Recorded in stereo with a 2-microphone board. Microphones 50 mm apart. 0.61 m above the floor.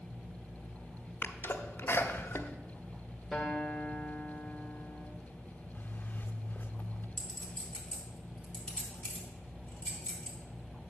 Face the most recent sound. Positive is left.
turn(degrees=20)  # may be behind; listen again after turning